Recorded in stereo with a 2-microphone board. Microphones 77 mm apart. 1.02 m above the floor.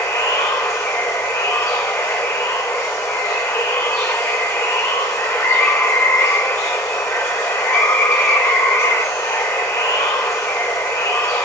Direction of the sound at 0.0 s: 40° left (ahead or behind).